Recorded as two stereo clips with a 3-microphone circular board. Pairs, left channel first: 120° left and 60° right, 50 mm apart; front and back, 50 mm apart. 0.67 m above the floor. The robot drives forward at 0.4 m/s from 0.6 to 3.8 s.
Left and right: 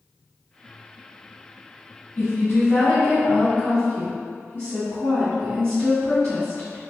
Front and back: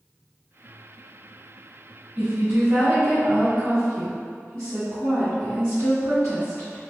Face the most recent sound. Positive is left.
turn(degrees=155)